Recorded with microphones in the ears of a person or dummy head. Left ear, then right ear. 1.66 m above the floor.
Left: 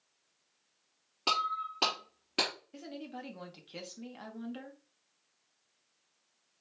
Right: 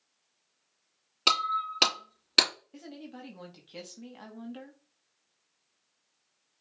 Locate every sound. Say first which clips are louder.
1.3 s breaking glass: right 5 dB; 55° right (ahead or behind), 3 m
2.7 s a woman speaking: left 1 dB; 10° left (ahead or behind), 1.2 m